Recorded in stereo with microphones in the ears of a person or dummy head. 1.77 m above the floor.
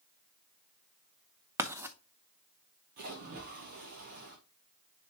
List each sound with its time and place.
1.6 s writing: 10° right (ahead or behind), 0.6 m
3.0 s a splash: 50° right (ahead or behind), 1.0 m